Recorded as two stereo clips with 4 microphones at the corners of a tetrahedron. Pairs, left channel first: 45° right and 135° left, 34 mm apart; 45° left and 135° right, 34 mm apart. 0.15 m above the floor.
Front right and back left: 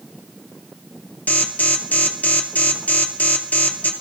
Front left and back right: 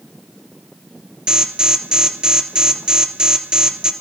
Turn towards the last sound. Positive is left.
turn(degrees=-75)